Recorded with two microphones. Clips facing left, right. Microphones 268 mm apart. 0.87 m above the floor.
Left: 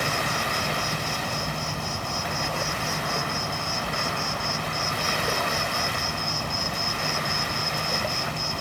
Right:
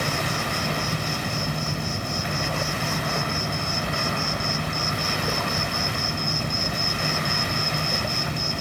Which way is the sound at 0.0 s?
20° right (ahead or behind).